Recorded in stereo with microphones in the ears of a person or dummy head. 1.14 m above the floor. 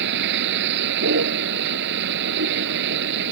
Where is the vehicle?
65° right (ahead or behind).